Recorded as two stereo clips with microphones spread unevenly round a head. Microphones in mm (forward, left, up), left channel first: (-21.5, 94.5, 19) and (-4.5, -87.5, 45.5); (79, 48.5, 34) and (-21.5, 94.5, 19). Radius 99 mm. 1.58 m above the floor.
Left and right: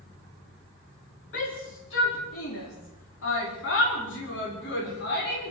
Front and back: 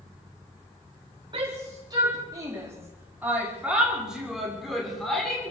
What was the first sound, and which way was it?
A shout, 115° left.